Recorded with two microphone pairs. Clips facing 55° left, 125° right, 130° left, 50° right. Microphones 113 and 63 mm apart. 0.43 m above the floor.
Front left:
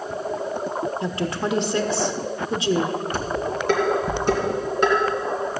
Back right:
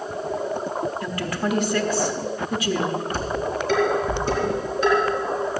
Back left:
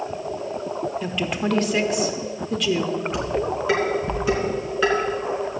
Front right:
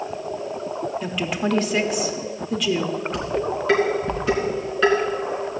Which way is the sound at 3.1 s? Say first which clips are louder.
Even, even; 45° left.